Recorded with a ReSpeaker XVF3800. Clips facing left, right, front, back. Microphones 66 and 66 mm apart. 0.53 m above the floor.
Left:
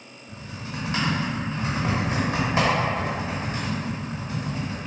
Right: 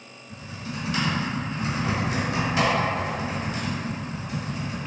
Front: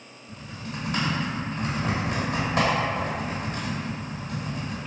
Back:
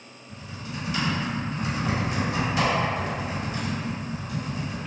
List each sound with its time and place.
0.3 s typing on a keyboard: 35° left, 1.0 m